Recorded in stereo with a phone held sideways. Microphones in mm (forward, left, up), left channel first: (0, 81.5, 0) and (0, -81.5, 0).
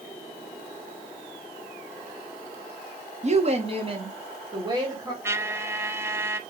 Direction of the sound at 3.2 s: 45° right (ahead or behind).